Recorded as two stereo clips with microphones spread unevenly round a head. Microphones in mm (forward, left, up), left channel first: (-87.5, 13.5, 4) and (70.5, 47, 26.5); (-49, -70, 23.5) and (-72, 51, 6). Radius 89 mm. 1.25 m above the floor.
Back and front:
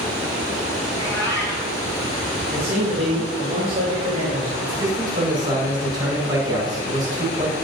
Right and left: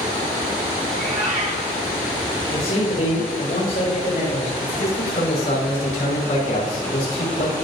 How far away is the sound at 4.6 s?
About 6 m.